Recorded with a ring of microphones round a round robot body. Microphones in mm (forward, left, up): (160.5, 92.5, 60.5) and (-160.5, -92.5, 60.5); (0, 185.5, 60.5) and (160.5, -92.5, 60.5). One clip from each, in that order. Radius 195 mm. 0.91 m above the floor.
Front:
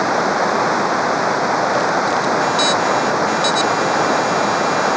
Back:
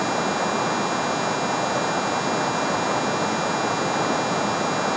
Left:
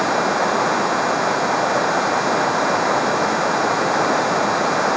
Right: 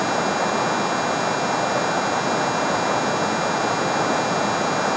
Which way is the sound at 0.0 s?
85° left.